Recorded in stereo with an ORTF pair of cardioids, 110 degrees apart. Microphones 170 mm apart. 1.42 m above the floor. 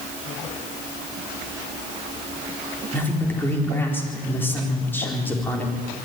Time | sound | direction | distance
2.9 | a man speaking | 10° left | 4 m